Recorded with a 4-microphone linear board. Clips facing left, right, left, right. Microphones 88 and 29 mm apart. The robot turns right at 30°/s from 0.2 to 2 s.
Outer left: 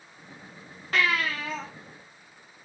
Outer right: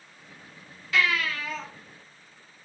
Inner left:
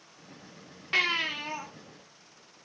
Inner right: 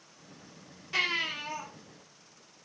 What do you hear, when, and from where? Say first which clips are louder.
0.9 s a baby crying: even, inner left 3 dB; 50° left (ahead or behind), 2 m; by 1.6 s 30° left (ahead or behind), 2 m